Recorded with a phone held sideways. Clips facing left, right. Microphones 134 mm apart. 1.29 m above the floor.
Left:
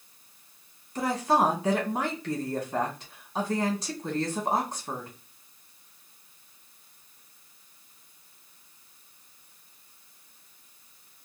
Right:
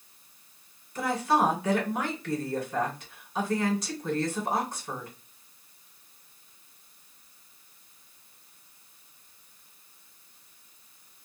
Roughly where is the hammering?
No hammering in this recording.